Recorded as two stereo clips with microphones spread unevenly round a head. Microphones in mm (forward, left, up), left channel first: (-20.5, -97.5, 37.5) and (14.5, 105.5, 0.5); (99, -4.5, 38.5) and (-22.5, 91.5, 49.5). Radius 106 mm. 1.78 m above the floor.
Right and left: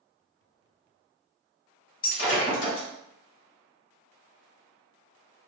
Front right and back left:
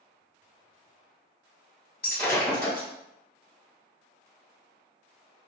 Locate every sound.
2.0 s breaking glass: 105° right, 1.3 m